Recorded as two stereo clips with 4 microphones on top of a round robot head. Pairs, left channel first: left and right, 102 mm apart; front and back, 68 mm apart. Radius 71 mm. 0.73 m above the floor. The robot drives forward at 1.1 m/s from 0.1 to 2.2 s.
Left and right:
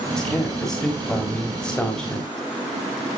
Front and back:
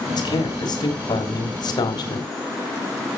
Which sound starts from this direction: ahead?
A man speaking, at 0.1 s.